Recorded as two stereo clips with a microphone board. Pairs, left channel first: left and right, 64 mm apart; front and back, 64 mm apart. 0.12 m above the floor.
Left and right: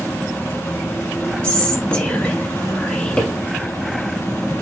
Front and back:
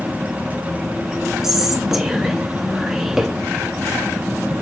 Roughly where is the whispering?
Behind left.